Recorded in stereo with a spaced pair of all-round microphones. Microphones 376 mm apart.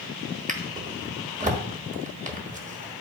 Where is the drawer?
20° right (ahead or behind), 1.2 m.